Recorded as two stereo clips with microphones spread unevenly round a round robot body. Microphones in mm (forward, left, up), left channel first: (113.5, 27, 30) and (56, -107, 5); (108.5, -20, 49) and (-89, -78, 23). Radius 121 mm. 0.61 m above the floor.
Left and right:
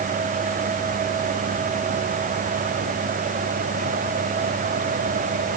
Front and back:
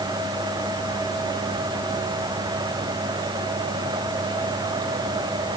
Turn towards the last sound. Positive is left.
No sound to turn to.